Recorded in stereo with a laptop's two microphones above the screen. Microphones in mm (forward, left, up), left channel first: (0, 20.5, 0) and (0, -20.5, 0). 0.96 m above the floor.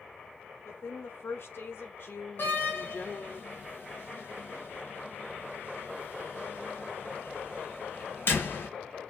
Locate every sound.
0.7 s a woman speaking: 85° left, 2.5 m; by 3.4 s 40° left (ahead or behind), 2.5 m
2.4 s a door slam: 60° left (ahead or behind), 3.5 m